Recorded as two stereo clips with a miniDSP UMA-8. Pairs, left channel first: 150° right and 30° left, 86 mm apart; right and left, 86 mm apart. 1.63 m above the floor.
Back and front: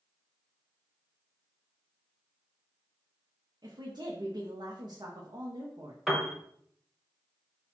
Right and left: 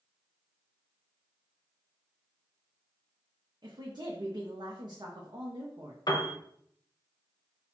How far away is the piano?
About 0.7 m.